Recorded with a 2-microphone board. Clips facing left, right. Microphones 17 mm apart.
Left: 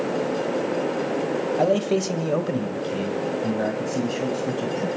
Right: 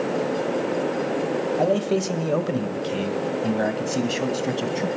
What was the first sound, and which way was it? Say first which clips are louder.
A man speaking: left 1 dB; 20° left (ahead or behind).